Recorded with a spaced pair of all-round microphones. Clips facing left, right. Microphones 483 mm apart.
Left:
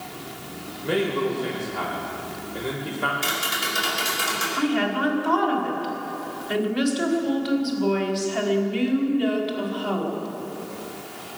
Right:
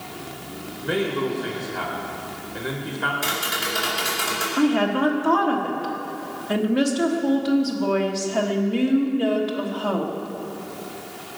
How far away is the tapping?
About 5 m.